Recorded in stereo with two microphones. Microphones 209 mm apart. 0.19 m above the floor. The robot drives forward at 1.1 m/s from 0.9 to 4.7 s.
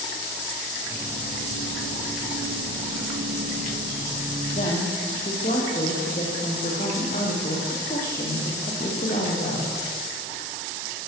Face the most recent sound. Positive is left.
turn(degrees=40)  # may be behind; listen again after turning